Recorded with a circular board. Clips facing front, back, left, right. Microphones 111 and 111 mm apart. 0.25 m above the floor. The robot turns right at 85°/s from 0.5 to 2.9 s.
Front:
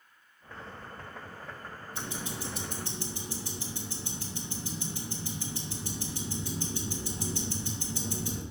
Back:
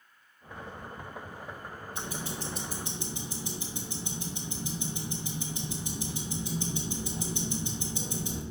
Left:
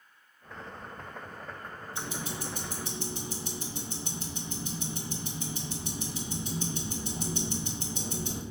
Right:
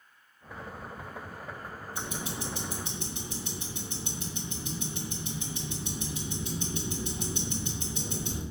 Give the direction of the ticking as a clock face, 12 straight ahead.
11 o'clock.